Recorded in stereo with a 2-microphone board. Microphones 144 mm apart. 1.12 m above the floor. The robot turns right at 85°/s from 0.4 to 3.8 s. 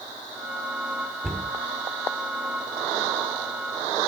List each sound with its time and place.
1.2 s a cupboard door: centre (ahead or behind), 3 m; by 1.5 s 20° left (ahead or behind), 3 m